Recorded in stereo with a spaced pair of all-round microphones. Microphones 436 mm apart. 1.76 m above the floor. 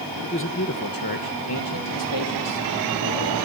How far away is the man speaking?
About 1.7 m.